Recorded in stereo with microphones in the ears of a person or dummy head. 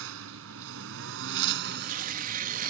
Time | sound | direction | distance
0.0 | a lawn mower | 75° right (ahead or behind) | ?
1.7 | tearing paper | 55° right (ahead or behind) | ?